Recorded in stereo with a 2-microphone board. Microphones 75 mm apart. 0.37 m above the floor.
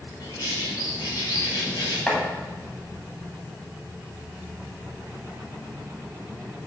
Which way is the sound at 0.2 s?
65° left (ahead or behind).